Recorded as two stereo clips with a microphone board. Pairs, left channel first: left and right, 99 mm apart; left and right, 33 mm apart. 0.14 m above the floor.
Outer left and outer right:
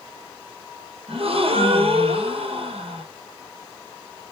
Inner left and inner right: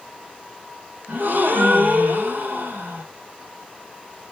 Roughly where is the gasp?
Right.